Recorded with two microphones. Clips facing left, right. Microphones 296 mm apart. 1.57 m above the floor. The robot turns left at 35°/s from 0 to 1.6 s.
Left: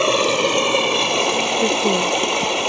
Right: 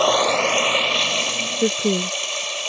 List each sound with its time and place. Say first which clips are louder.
0.0 s running water: left 2 dB; 150° left; by 2.7 s 95° left
1.6 s a woman speaking: right 1 dB; 10° right (ahead or behind)